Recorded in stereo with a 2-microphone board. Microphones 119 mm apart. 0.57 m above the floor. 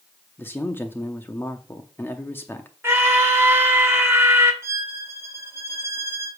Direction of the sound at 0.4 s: 20° left (ahead or behind).